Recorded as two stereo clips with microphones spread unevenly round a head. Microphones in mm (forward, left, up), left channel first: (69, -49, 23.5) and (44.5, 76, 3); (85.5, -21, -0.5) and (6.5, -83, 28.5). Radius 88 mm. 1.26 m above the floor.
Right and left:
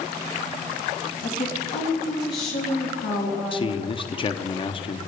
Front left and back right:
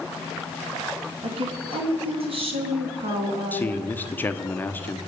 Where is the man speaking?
25° right, 0.8 m.